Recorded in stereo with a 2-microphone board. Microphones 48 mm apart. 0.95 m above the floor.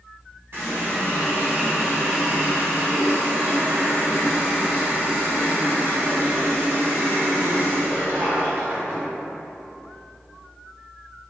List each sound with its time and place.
0.5 s a running tap: 50° right (ahead or behind), 1.5 m